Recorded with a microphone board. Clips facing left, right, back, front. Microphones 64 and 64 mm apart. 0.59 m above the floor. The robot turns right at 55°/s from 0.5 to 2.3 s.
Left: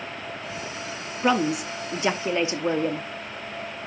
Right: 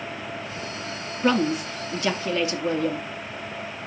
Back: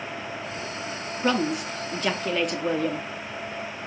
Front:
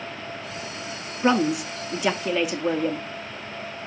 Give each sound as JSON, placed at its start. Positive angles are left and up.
{"t": 1.2, "sound": "a woman speaking", "azimuth_deg": 25, "distance_m": 0.6}